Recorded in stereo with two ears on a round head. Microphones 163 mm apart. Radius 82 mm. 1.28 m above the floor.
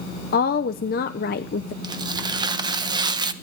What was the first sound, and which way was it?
A woman speaking, 50° left (ahead or behind).